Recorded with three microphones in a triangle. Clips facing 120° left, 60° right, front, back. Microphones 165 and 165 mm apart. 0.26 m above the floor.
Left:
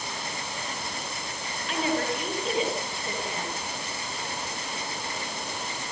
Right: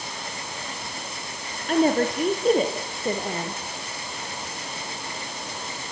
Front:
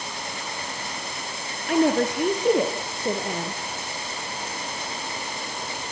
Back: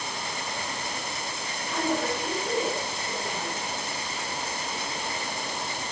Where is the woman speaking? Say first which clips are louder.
Right 8 dB, front 8 dB; 15° right, 5.5 m.